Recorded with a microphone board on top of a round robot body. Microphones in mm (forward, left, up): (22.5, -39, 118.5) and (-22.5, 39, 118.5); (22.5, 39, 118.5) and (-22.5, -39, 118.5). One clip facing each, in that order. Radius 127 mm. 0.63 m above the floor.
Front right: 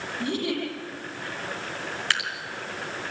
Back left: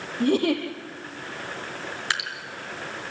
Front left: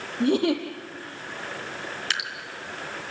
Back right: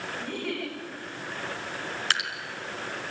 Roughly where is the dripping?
Behind.